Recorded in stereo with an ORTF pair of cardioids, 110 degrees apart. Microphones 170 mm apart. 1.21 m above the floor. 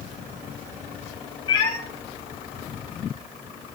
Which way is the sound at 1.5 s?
30° left.